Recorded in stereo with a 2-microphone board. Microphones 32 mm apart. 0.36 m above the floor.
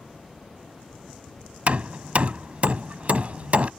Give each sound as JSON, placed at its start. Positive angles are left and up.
{"t": 1.7, "sound": "hammering", "side_deg": -50}